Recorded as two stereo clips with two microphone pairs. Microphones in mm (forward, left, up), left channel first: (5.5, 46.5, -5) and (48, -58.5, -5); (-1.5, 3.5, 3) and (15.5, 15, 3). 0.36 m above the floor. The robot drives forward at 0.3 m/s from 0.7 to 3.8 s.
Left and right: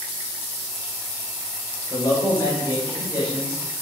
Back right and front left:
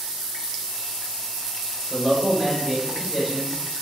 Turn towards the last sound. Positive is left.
turn(degrees=130)